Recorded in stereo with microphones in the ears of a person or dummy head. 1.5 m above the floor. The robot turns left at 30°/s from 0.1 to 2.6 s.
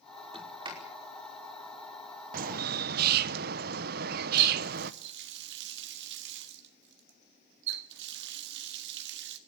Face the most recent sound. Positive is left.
turn(degrees=-70)  # may be behind; listen again after turning